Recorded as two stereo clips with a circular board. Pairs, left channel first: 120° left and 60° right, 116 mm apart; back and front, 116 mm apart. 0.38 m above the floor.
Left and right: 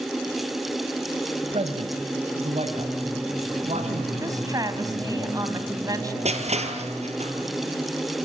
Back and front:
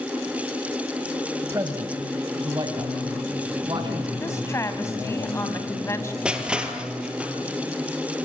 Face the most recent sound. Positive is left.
turn(degrees=-80)